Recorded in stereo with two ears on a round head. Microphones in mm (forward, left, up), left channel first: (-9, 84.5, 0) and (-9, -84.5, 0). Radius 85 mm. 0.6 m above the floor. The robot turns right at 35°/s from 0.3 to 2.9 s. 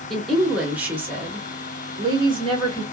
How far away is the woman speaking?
About 1.3 m.